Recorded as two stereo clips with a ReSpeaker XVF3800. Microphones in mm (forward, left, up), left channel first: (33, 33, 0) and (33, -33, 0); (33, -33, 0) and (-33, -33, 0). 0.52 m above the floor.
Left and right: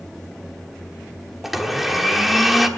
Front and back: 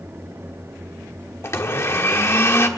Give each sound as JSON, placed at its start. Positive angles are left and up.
{"t": 1.4, "sound": "a blender", "azimuth_deg": -5, "distance_m": 1.3}